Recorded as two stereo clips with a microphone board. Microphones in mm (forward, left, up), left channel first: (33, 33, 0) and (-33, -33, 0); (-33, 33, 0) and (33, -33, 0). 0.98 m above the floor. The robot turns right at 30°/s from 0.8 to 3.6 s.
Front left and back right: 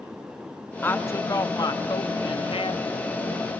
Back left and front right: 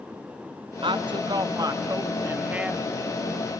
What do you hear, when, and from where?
0.8 s a woman speaking: 25° right, 1.2 m; by 2.8 s 35° left, 1.2 m